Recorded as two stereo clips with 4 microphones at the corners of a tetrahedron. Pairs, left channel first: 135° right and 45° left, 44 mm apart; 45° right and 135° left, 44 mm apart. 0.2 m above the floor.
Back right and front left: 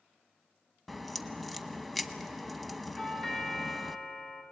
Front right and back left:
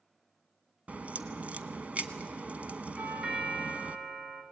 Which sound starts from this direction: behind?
A doorbell, at 3.0 s.